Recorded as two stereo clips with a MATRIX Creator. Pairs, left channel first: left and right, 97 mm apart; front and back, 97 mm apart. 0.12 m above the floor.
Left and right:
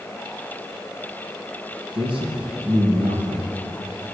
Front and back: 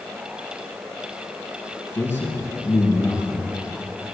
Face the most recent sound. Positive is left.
turn(degrees=-65)